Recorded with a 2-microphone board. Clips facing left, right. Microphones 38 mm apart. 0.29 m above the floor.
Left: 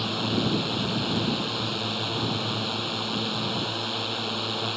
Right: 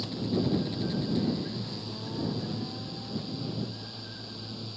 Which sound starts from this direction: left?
A drone, at 0.0 s.